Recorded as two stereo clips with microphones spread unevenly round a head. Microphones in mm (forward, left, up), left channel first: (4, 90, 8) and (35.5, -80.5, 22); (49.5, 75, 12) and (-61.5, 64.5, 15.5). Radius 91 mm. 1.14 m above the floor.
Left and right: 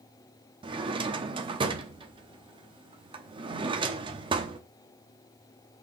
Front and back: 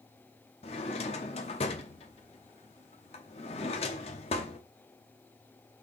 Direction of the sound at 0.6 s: 30° right.